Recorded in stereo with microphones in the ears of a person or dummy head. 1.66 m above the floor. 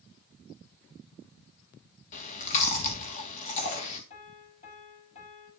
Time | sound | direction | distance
2.1 | chewing | 35° left (ahead or behind) | 3 m
4.1 | a piano | 35° left (ahead or behind) | 6.5 m